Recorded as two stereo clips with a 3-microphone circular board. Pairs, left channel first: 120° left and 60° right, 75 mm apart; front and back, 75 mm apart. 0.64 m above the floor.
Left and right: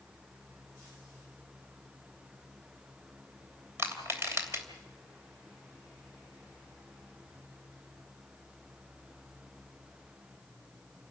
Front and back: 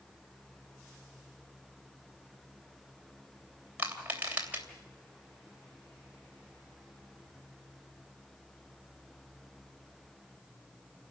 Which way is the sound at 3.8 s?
110° right.